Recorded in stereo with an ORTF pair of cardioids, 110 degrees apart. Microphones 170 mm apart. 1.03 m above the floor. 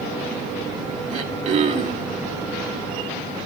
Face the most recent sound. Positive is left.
turn(degrees=-45)